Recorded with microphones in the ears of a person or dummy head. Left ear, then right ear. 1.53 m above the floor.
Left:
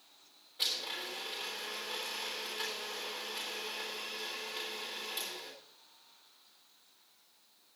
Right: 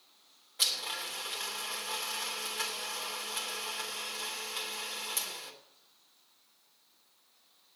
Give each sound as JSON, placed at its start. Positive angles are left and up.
{"t": 0.6, "sound": "a blender", "side_deg": -25, "distance_m": 1.4}